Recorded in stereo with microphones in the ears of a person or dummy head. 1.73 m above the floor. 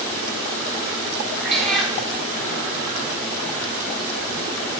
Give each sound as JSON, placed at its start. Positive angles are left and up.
{"t": 1.4, "sound": "a cat meowing", "side_deg": 5, "distance_m": 3.0}